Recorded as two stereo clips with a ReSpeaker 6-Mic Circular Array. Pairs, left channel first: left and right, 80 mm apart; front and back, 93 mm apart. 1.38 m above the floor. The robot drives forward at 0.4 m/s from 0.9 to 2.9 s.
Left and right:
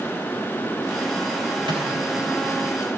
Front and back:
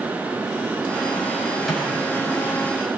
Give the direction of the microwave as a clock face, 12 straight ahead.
3 o'clock.